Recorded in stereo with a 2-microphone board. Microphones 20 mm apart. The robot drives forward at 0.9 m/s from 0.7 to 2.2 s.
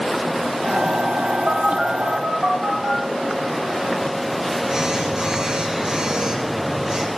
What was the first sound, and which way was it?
A phone buzzing, 40° right (ahead or behind).